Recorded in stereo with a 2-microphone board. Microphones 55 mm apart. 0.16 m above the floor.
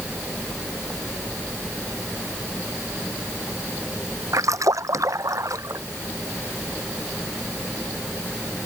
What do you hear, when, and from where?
4.3 s a splash: 75° right (ahead or behind)